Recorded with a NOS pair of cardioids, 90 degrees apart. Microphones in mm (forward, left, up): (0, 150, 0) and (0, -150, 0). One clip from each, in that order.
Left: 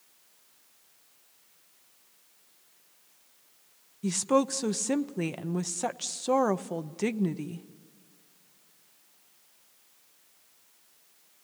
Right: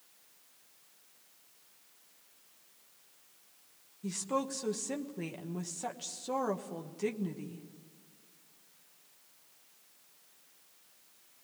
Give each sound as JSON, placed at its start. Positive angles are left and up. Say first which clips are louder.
{"t": 4.0, "sound": "a woman speaking", "louder": "left 9 dB", "azimuth_deg": 45, "distance_m": 1.0}